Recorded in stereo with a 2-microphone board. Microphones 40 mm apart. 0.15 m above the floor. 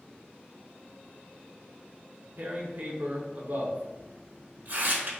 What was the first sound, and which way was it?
Tearing paper, 50° right (ahead or behind).